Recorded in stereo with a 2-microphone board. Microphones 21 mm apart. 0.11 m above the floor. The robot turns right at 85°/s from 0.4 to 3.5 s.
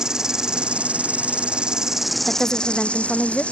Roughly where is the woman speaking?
Ahead.